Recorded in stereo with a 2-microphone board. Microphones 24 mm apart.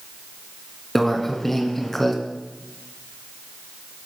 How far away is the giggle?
I don't hear a giggle.